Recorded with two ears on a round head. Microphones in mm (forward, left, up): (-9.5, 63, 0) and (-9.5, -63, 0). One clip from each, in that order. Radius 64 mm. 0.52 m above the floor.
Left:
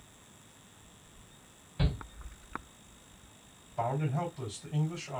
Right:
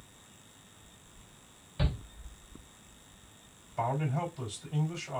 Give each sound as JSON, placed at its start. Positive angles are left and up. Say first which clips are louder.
{"t": 1.8, "sound": "a shout", "louder": "even", "side_deg": -25, "distance_m": 2.0}
{"t": 3.8, "sound": "a man speaking", "louder": "right 1 dB", "side_deg": -40, "distance_m": 2.5}